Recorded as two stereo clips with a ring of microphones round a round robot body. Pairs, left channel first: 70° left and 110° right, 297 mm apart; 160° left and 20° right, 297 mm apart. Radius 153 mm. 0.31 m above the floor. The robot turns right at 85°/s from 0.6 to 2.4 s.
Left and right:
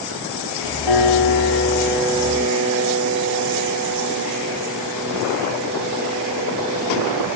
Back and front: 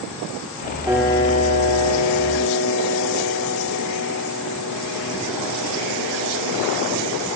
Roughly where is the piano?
Ahead left.